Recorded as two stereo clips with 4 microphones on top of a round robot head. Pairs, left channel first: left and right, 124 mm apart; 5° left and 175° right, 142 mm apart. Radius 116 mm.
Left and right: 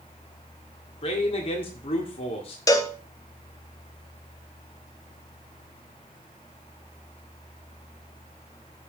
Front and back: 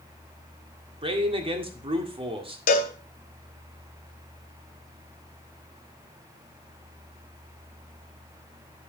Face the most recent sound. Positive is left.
turn(degrees=25)